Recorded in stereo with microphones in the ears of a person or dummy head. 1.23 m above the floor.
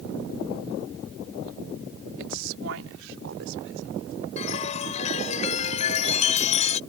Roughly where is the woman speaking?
Right.